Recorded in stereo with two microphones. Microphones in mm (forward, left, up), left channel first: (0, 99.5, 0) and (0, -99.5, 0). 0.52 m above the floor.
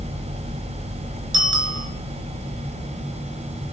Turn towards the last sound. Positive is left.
turn(degrees=-75)  # may be behind; listen again after turning